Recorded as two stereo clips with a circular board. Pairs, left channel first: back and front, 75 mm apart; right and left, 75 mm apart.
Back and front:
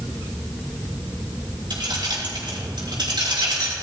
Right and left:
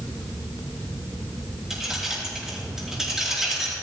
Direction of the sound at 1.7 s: 5° left.